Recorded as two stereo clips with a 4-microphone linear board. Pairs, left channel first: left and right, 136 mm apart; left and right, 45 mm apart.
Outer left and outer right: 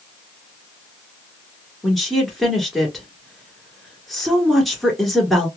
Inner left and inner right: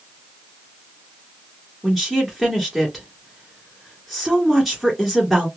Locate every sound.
1.8 s a woman speaking: centre (ahead or behind), 1.7 m